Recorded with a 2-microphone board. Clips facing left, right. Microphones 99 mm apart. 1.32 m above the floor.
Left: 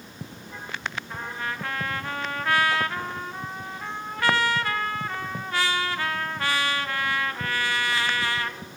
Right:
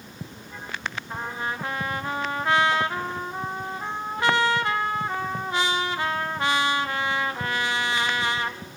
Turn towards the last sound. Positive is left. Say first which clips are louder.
# right 5 dB
turn(degrees=-20)  # may be behind; listen again after turning